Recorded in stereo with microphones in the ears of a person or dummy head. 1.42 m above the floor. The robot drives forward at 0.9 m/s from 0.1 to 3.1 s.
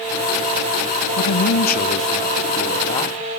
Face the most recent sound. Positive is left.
turn(degrees=20)  # may be behind; listen again after turning